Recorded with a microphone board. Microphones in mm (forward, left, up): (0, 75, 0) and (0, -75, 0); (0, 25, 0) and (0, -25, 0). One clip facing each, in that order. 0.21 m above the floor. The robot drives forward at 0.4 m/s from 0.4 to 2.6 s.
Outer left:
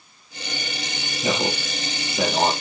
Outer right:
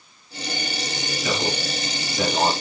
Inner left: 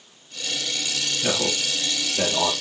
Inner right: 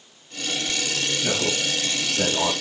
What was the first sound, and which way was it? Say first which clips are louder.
A man speaking: outer left 2 dB, inner left 1 dB; 30° left (ahead or behind).